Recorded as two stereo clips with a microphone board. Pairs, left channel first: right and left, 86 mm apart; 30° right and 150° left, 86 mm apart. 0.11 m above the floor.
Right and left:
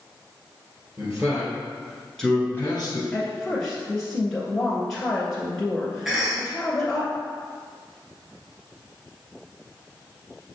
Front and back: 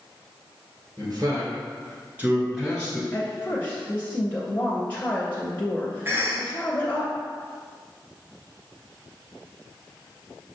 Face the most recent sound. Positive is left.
turn(degrees=165)